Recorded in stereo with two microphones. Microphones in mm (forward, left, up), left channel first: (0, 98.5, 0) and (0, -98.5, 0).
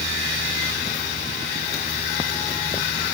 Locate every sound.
Only background noise.